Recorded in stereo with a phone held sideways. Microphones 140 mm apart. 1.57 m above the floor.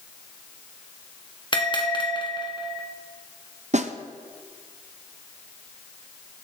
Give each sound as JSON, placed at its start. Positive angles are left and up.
{"t": 1.5, "sound": "a bell", "side_deg": 35, "distance_m": 1.4}
{"t": 3.7, "sound": "a snare drum", "side_deg": -55, "distance_m": 0.6}